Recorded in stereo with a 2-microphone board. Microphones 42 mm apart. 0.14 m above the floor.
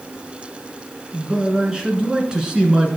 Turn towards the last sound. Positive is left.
turn(degrees=-15)  # may be behind; listen again after turning